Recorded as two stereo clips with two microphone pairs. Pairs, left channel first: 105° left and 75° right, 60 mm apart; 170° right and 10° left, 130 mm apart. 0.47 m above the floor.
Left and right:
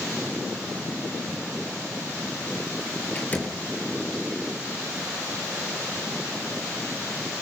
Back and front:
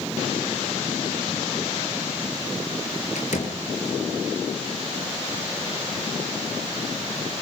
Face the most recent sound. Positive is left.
turn(degrees=170)